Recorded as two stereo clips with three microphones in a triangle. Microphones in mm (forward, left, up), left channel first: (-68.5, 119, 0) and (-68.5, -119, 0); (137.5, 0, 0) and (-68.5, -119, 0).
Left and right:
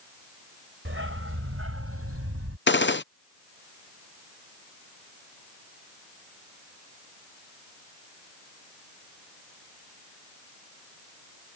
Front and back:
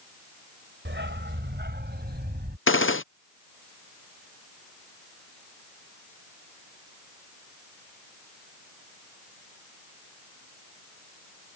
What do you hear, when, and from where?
0.8 s a dog barking: 115° right; by 2.6 s 100° right
2.7 s a gunshot: 55° left